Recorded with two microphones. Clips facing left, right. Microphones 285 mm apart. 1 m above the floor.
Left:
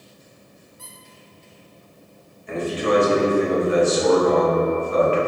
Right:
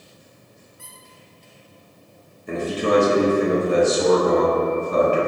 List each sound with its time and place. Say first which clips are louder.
0.8 s a squeak: left 2 dB; 45° left (ahead or behind), 0.7 m
2.5 s a man speaking: right 1 dB; 50° right (ahead or behind), 0.8 m